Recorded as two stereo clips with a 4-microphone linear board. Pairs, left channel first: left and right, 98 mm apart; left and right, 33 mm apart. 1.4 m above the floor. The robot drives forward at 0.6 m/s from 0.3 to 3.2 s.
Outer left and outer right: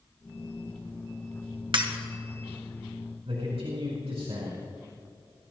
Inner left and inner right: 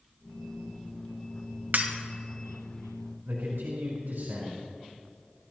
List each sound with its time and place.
1.7 s breaking glass: 55° right (ahead or behind), 1.9 m
3.2 s a man speaking: 85° right, 4 m